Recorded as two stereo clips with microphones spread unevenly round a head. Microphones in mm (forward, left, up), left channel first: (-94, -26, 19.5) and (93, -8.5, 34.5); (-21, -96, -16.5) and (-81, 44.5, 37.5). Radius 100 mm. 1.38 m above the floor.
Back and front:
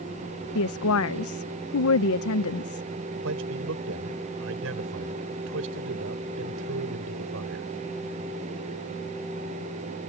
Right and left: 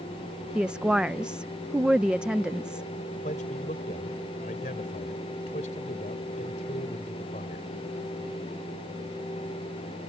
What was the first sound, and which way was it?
A woman speaking, 165° right.